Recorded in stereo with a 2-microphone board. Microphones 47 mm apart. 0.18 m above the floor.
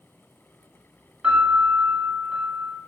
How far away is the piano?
About 1.1 m.